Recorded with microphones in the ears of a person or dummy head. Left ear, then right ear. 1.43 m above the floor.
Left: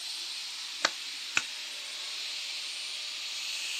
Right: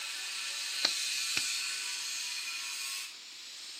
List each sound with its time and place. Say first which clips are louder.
0.8 s a clap: even; 40° left (ahead or behind)